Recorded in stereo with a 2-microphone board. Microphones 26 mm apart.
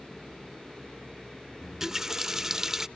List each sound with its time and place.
1.6 s a running tap: 15° right (ahead or behind), 0.5 m